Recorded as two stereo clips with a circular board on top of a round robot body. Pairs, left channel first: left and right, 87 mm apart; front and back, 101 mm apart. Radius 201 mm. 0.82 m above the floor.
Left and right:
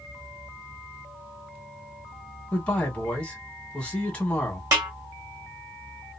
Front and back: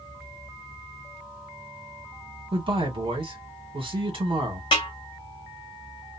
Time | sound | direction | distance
2.5 | a man speaking | 165° left | 1.7 m
4.7 | a snare drum | 40° right | 0.8 m